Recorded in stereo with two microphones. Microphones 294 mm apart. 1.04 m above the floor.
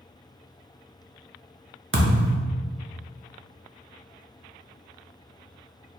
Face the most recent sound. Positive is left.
turn(degrees=-45)  # may be behind; listen again after turning